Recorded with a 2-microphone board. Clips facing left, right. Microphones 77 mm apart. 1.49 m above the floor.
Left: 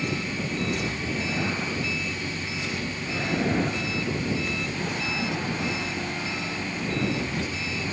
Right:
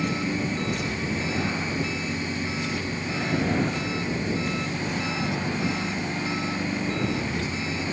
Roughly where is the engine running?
Right.